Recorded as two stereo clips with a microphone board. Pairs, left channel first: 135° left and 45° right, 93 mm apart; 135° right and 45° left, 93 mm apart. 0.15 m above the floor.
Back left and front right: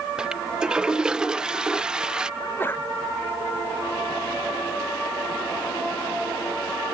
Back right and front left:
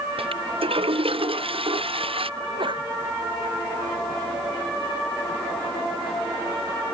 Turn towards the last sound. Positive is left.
turn(degrees=65)